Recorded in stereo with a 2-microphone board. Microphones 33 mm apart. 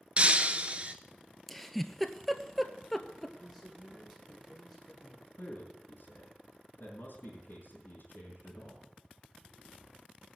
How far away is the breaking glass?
About 1.0 m.